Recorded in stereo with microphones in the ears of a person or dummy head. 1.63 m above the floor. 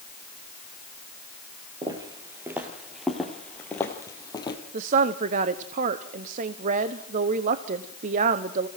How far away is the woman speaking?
About 0.9 m.